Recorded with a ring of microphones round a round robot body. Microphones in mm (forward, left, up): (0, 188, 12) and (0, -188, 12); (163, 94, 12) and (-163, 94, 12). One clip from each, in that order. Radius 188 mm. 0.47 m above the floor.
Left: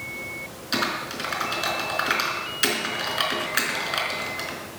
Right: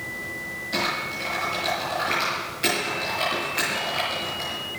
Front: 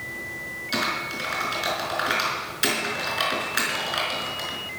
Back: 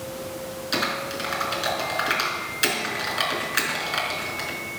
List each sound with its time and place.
0.7 s typing on a keyboard: 105° left, 5 m